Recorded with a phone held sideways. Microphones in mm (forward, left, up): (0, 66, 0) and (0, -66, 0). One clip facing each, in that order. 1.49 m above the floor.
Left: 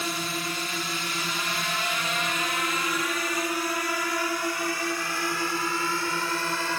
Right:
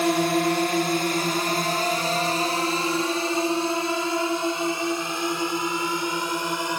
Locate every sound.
0.0 s a drone: 65° right (ahead or behind); by 6.8 s 20° right (ahead or behind)